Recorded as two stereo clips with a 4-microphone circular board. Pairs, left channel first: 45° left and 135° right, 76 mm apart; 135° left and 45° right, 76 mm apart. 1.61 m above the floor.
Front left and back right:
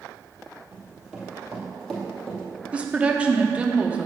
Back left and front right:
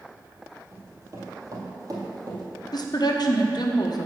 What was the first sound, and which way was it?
Running footsteps, 70° right.